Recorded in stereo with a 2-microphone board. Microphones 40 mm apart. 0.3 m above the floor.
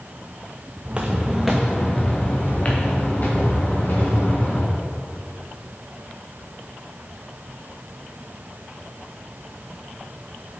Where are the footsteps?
30° right (ahead or behind), 1.1 m; by 4.7 s 55° left (ahead or behind), 3.5 m.